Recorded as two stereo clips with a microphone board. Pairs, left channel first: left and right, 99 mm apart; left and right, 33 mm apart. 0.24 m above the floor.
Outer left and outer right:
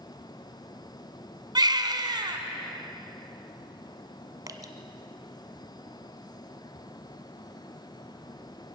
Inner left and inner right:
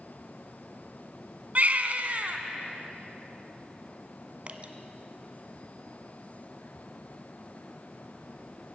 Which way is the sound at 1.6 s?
45° right (ahead or behind).